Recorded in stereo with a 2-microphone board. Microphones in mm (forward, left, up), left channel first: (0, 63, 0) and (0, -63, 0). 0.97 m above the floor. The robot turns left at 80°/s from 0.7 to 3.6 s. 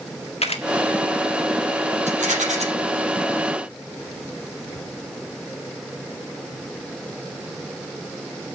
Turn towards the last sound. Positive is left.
turn(degrees=165)